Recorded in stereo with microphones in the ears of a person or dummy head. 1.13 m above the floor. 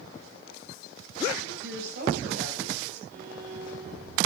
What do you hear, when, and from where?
1.4 s a woman speaking: 70° right (ahead or behind), 7.5 m
3.1 s a violin: 55° right (ahead or behind), 7.5 m